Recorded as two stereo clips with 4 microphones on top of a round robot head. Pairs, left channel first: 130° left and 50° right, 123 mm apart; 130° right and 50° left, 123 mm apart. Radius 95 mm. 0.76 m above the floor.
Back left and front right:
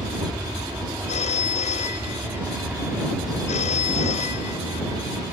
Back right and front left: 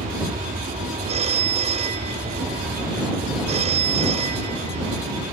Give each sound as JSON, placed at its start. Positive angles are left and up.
{"t": 0.0, "sound": "an aircraft", "azimuth_deg": 35}
{"t": 1.1, "sound": "a phone ringing", "azimuth_deg": 90}